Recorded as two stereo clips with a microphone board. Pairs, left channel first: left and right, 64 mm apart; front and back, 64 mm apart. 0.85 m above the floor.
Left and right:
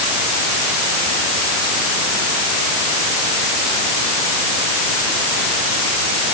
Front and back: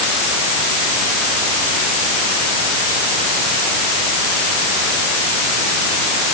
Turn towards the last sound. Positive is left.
No sound to turn to.